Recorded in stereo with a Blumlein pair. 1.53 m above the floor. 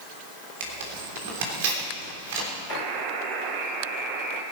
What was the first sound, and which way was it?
Tearing paper, 55° right.